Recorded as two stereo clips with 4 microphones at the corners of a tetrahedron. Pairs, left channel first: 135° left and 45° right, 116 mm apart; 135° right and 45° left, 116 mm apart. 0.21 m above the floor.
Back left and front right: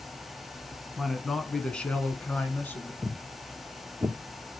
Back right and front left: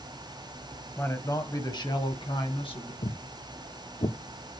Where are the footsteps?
125° right, 1.4 m; by 4.2 s 110° right, 1.8 m.